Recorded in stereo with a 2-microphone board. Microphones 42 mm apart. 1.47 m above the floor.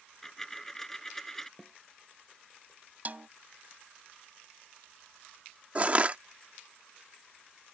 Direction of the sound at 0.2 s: 10° left (ahead or behind).